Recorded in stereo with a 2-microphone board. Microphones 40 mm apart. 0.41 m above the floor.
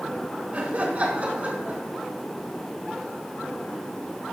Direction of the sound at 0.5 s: 40° right (ahead or behind).